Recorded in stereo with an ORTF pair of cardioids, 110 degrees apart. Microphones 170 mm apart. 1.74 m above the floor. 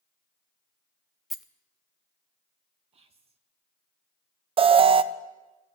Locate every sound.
1.3 s a rattle: straight ahead, 0.8 m
2.9 s whispering: 35° right, 0.9 m
4.6 s an alarm: 35° right, 0.6 m